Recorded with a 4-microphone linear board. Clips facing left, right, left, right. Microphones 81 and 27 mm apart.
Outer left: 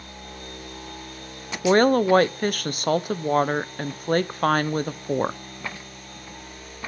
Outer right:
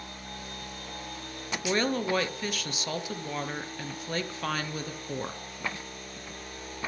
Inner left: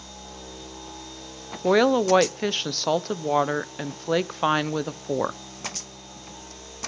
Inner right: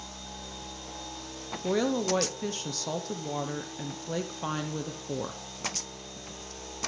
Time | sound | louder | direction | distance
1.6 | a woman speaking | outer left 11 dB, inner left 9 dB | 50° left (ahead or behind) | 0.8 m